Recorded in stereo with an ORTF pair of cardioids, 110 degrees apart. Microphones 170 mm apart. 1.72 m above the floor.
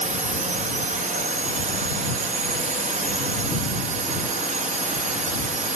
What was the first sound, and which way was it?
A drone, 50° right.